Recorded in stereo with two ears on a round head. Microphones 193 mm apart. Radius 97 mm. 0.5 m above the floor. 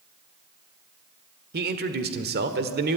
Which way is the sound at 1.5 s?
45° right (ahead or behind).